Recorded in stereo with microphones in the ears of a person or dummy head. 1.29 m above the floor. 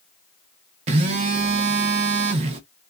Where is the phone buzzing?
40° right (ahead or behind), 0.5 m.